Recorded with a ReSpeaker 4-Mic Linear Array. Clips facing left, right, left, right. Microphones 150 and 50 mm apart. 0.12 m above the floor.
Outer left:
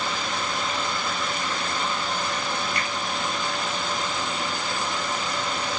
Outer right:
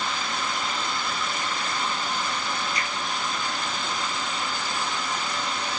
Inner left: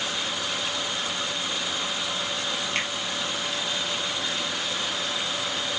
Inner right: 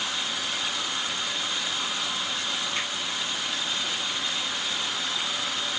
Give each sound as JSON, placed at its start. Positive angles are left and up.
{"t": 2.8, "sound": "a finger snap", "side_deg": 60, "distance_m": 2.0}